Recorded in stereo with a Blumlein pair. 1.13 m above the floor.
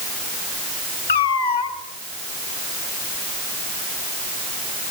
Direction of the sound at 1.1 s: 65° left.